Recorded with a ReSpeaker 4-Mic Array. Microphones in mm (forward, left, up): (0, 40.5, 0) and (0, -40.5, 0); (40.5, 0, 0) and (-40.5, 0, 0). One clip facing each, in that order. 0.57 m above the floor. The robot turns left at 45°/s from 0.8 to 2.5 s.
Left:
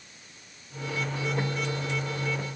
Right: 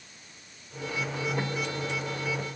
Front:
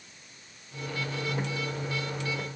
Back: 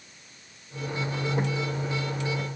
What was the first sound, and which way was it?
Only background noise.